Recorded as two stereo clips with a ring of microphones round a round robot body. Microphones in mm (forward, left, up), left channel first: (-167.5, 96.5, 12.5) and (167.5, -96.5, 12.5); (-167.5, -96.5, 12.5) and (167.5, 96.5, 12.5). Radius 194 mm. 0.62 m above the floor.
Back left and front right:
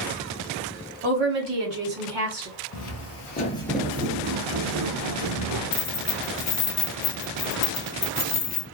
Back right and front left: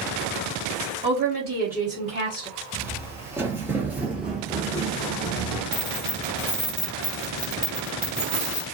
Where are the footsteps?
115° left, 0.9 m; by 5.6 s 60° right, 1.4 m.